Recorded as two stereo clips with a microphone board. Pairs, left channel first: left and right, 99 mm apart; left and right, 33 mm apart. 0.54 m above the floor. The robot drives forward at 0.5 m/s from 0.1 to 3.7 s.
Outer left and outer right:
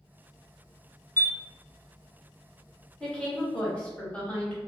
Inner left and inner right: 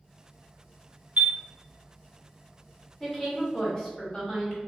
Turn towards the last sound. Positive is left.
turn(degrees=15)  # may be behind; listen again after turning